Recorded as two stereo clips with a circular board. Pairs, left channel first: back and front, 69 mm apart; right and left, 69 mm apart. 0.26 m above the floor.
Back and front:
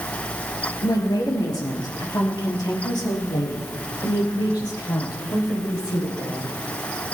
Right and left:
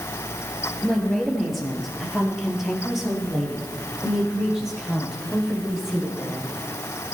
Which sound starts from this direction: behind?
A woman speaking, at 0.8 s.